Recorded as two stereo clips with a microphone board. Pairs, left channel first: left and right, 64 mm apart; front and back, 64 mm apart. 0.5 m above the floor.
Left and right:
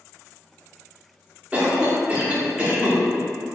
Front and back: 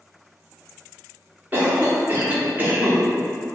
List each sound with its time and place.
1.5 s a cough: 145° right, 0.9 m